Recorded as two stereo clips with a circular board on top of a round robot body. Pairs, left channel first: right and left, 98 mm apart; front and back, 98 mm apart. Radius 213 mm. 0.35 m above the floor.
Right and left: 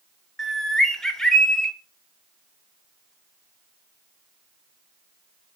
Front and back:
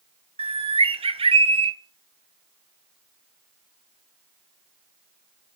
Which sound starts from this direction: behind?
A bird, at 0.4 s.